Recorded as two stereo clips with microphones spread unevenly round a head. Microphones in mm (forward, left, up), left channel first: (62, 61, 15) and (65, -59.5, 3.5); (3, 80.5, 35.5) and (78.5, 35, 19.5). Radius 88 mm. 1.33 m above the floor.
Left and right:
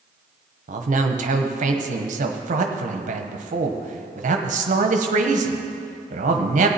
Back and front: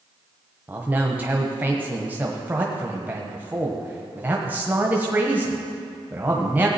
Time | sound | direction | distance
0.7 | a man speaking | 105° right | 1.1 m